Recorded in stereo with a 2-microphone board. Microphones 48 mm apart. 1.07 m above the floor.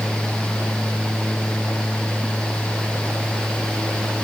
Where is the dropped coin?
I don't hear a dropped coin.